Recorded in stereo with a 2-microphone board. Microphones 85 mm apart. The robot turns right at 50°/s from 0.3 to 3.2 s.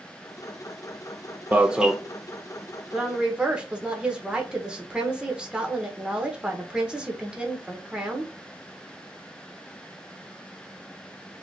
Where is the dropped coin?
No dropped coin in this recording.